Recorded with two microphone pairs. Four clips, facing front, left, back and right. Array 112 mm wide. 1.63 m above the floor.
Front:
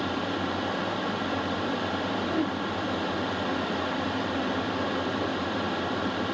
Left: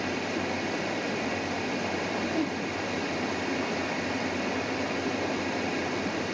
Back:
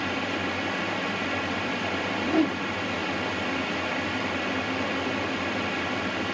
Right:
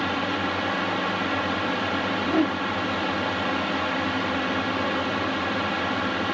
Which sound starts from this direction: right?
A drone, at 0.0 s.